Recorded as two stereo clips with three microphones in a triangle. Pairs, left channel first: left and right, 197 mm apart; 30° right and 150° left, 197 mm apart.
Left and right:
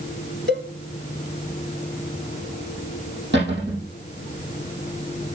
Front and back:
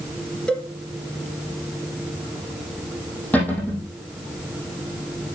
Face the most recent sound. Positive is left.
turn(degrees=-110)